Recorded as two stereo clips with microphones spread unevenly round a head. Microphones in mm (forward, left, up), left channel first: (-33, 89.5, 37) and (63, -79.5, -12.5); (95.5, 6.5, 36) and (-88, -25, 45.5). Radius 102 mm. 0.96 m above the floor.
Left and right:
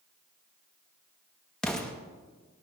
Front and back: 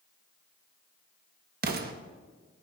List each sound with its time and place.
1.6 s an explosion: 145° right, 1.0 m